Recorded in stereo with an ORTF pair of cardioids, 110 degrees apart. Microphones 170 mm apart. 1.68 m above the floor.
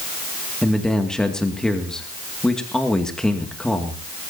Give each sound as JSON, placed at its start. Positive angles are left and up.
{"t": 0.6, "sound": "a man speaking", "azimuth_deg": 5, "distance_m": 2.5}